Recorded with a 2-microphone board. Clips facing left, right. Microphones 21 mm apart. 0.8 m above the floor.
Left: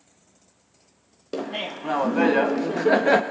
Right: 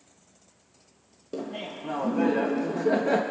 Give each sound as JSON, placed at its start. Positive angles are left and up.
{"t": 1.3, "sound": "laughter", "side_deg": 45, "distance_m": 0.5}